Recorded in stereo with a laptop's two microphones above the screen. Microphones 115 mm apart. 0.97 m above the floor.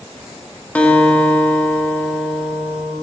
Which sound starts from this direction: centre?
A guitar, at 0.8 s.